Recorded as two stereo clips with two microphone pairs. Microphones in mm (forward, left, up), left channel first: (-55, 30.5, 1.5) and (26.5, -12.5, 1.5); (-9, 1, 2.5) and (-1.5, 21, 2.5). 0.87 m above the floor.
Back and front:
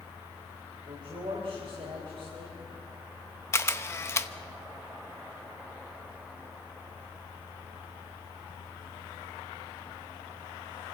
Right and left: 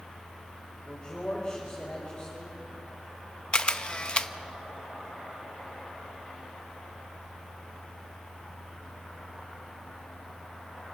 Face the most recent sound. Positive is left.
turn(degrees=-150)